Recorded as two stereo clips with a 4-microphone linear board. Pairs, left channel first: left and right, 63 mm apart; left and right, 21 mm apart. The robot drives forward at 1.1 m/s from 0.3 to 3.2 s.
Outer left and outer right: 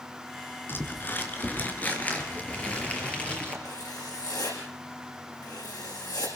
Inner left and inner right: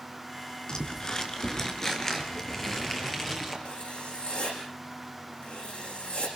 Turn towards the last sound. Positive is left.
turn(degrees=85)